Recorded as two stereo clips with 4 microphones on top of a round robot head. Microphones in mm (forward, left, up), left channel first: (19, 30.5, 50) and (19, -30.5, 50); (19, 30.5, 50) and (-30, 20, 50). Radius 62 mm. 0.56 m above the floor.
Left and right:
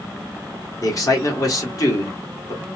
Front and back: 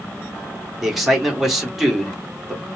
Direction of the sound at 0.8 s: 110° left.